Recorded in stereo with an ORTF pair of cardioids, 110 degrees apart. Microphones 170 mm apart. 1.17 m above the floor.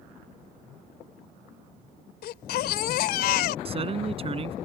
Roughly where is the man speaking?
Ahead right.